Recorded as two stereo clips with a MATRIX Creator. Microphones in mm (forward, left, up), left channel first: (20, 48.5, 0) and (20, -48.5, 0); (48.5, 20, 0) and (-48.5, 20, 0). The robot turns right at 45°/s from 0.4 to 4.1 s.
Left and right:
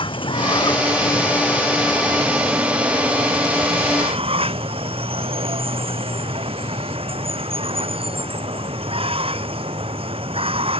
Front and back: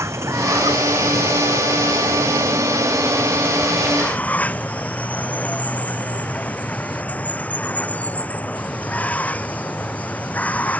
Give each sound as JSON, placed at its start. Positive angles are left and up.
{"t": 0.0, "sound": "running water", "azimuth_deg": 120}